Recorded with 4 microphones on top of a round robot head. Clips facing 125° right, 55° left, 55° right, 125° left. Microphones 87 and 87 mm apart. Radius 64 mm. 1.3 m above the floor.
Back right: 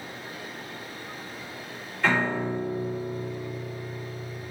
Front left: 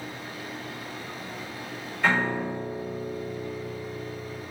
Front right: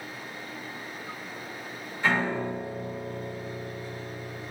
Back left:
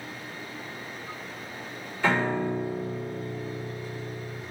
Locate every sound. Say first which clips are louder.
2.0 s a piano: even, back left 2 dB; 140° left, 1.8 m